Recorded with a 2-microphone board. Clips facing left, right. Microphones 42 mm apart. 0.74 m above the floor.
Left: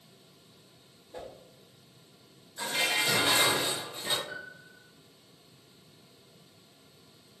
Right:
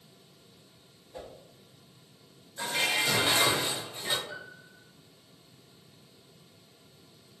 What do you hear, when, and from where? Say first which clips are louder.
1.1 s a whoosh: left 1 dB; 45° left (ahead or behind), 0.8 m
2.6 s dishes clattering: even; centre (ahead or behind), 0.8 m
4.3 s a piano: left 1 dB; 45° left (ahead or behind), 1.3 m